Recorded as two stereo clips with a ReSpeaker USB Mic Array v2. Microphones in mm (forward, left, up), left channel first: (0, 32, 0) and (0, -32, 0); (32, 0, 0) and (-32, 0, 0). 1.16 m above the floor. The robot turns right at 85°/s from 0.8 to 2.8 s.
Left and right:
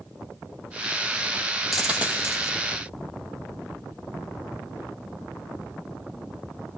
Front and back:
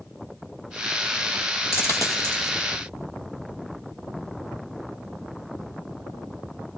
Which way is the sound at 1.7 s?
Straight behind.